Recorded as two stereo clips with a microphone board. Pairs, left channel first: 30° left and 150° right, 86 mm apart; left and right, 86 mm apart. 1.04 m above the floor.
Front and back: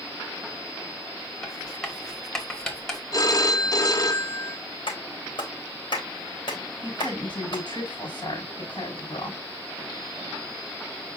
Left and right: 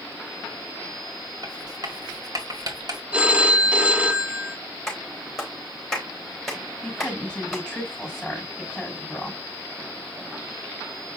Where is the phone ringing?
15° right, 0.8 m.